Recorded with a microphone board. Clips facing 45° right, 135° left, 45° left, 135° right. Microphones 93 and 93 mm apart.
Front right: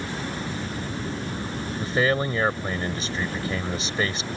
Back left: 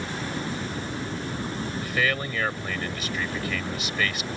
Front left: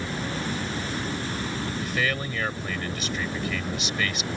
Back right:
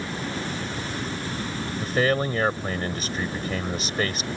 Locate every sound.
1.8 s a man speaking: 100° right